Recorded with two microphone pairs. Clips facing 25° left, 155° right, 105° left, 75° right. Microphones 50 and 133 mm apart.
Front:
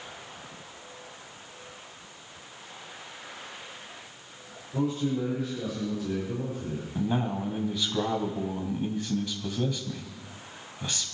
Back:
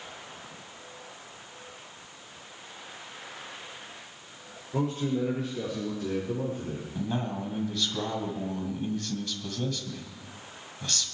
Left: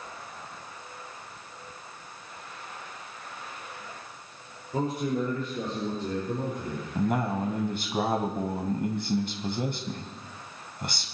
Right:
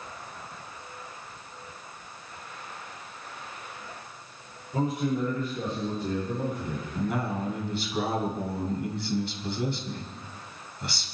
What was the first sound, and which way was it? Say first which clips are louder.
A man speaking: front 1 dB, right 1 dB; 160° left.